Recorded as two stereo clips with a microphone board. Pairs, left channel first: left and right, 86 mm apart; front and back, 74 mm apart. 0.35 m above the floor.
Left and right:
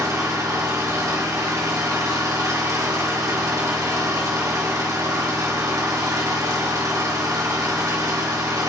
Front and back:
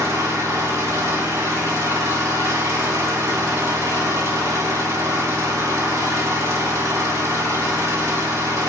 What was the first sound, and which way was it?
An engine running, 135° right.